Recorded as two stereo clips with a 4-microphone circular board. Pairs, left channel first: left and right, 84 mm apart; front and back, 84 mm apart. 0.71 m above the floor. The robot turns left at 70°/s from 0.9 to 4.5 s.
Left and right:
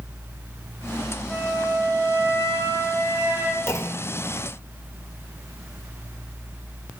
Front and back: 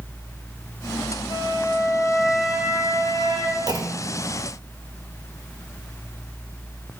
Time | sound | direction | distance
1.3 | a flute | 10° right | 1.8 m
3.7 | a clunk | 150° left | 0.7 m